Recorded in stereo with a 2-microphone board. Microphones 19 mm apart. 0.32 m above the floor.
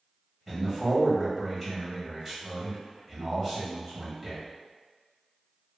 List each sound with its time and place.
0.5 s a man speaking: 5° left (ahead or behind), 1.3 m